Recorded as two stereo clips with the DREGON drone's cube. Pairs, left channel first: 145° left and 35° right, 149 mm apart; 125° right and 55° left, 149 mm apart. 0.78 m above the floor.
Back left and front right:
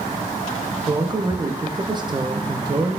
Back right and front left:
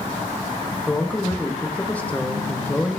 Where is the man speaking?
55° right, 0.6 m.